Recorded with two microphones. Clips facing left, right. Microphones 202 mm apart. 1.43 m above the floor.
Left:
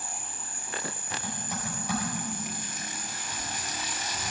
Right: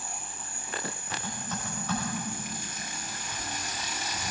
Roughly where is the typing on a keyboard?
Centre.